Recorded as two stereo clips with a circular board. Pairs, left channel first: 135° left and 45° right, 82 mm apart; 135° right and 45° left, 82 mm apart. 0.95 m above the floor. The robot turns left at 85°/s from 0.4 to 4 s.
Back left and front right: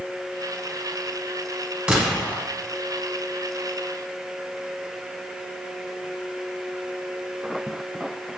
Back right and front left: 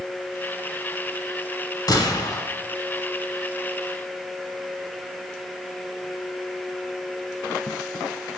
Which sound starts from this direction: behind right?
A gunshot, at 1.9 s.